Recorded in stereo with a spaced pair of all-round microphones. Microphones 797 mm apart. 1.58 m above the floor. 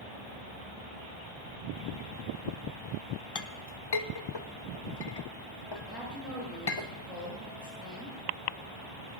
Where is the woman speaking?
Centre (ahead or behind), 8.5 m.